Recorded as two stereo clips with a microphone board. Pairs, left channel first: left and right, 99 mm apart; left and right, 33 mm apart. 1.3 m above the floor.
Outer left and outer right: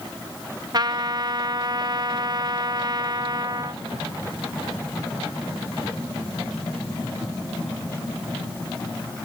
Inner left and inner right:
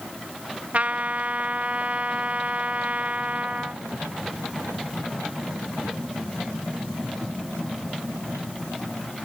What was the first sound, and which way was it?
A trumpet, 45° right (ahead or behind).